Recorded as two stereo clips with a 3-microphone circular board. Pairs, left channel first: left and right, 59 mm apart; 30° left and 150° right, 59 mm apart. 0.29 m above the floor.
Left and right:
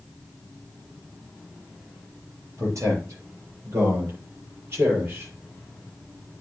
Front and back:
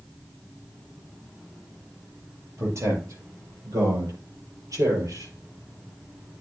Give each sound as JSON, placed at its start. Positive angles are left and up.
{"t": 2.6, "sound": "a man speaking", "azimuth_deg": -120, "distance_m": 6.5}